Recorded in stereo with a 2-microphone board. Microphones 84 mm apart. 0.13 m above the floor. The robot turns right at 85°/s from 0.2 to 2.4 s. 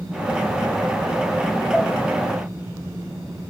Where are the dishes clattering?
5° left (ahead or behind), 1.8 m; by 1.9 s 20° left (ahead or behind), 1.8 m.